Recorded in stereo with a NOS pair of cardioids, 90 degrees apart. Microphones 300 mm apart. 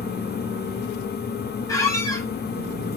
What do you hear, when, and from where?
0.0 s a fan: 35° left, 1.2 m
1.7 s a squeak: 10° left, 3.5 m